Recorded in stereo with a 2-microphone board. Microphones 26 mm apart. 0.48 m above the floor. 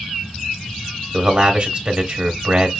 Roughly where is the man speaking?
Right.